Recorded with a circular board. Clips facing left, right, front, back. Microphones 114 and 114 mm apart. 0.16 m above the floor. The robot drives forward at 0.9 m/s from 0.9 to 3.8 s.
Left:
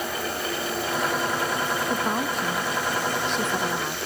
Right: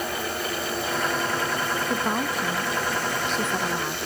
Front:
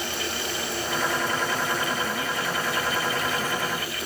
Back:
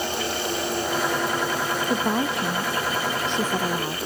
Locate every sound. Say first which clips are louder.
1.9 s a woman speaking: even, back 5 dB; straight behind